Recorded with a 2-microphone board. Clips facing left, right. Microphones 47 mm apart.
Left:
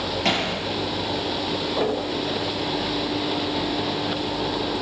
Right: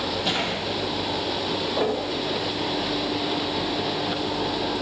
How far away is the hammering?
About 8.5 m.